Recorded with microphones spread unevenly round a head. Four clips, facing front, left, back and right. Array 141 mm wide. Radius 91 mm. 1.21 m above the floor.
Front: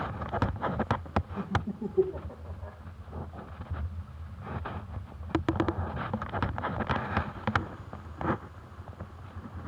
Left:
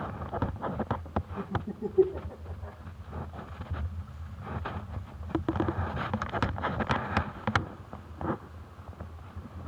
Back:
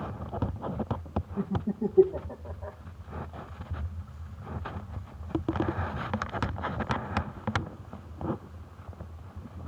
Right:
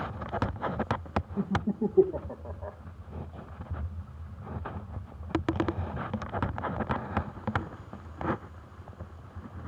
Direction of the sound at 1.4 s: 115° right.